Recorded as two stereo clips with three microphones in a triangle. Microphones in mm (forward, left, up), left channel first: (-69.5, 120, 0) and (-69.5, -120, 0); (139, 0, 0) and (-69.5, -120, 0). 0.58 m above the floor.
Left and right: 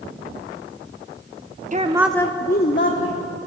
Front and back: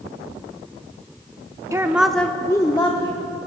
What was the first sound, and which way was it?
A woman speaking, 80° right.